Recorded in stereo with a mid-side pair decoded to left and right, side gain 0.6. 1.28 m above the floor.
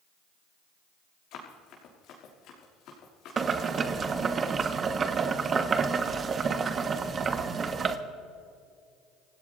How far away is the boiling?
About 1.2 m.